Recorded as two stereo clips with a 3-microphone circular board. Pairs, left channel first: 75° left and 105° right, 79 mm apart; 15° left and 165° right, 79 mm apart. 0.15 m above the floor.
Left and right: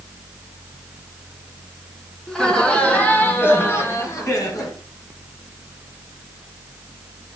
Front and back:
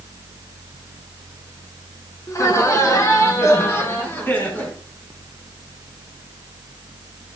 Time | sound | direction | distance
2.3 | laughter | 5° right | 2.5 m